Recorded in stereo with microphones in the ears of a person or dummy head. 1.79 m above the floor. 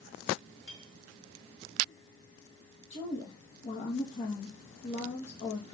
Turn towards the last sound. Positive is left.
turn(degrees=45)  # may be behind; listen again after turning